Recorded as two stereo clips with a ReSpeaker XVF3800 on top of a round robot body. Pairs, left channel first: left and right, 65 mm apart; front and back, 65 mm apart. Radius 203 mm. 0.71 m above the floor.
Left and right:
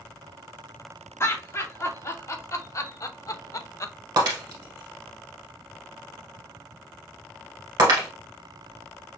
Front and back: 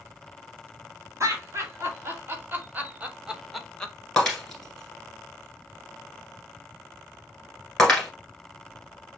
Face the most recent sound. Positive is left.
turn(degrees=-85)